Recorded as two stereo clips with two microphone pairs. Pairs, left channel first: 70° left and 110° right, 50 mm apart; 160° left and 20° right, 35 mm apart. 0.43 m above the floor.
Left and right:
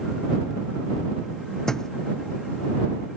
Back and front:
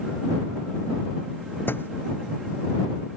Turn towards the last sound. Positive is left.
turn(degrees=150)